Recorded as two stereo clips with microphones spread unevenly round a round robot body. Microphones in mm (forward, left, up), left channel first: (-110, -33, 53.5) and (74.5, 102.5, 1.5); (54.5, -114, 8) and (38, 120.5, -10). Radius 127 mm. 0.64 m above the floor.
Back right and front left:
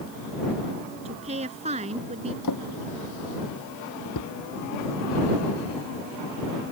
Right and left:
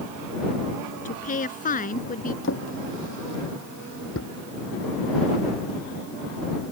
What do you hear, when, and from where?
1.1 s a woman speaking: 30° right
2.4 s a drawer: 130° right